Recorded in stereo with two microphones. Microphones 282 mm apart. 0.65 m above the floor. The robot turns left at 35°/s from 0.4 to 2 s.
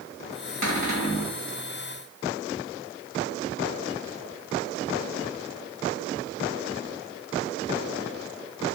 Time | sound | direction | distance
0.6 | a cupboard door | 80° right | 1.8 m